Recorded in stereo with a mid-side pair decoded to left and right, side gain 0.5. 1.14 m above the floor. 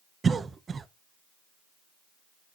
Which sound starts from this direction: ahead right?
A cough, at 0.2 s.